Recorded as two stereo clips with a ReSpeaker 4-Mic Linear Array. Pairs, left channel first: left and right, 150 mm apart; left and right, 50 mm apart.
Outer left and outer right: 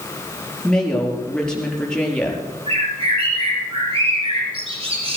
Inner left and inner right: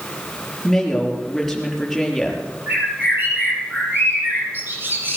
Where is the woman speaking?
5° left (ahead or behind), 5 m.